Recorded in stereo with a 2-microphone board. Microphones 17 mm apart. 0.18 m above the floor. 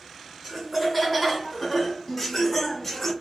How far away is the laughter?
About 2.5 m.